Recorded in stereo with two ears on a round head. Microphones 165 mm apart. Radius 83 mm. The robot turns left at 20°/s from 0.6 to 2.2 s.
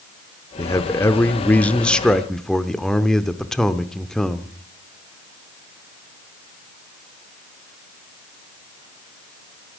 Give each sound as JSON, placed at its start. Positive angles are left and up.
{"t": 0.6, "sound": "a man speaking", "side_deg": 15, "distance_m": 0.8}